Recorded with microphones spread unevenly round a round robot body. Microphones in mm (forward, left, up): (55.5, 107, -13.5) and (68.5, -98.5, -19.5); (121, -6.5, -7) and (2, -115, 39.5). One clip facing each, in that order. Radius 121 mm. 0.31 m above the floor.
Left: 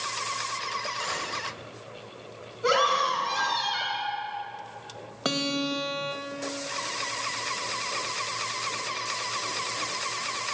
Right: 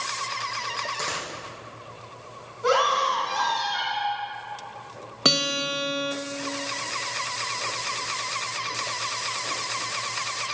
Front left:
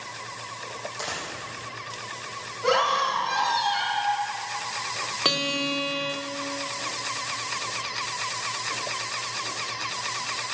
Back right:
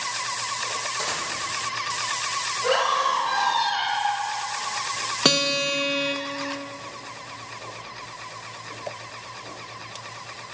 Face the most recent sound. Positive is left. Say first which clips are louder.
# even, back right 4 dB
turn(degrees=-120)